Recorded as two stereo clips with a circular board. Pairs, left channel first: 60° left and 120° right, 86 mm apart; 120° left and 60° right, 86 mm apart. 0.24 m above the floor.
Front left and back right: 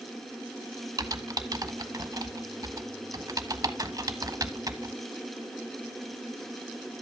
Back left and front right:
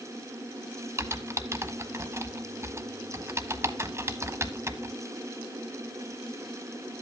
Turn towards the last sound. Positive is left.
turn(degrees=-105)